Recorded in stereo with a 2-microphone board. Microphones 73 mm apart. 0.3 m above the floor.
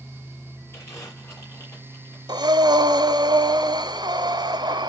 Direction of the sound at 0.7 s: 40° left (ahead or behind).